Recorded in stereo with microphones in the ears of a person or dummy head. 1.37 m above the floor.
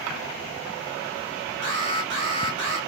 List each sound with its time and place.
1.6 s an alarm: 60° right (ahead or behind), 2 m